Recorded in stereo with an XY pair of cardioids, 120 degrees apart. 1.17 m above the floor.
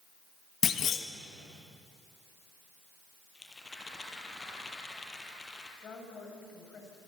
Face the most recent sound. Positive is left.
turn(degrees=45)